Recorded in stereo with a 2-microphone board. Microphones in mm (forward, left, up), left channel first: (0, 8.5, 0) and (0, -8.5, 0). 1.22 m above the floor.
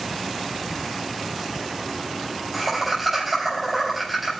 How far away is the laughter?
About 8 m.